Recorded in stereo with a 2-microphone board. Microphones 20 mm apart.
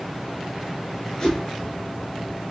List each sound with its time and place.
1.2 s a whoosh: 35° left (ahead or behind), 1.5 m